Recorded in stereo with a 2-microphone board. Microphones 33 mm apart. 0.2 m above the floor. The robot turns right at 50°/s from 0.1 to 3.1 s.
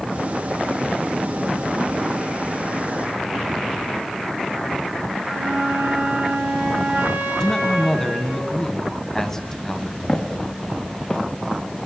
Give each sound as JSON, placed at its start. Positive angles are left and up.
{"t": 5.2, "sound": "a flute", "side_deg": -40, "distance_m": 3.0}
{"t": 7.4, "sound": "a man speaking", "side_deg": 15, "distance_m": 1.2}
{"t": 10.1, "sound": "footsteps", "side_deg": 20, "distance_m": 3.0}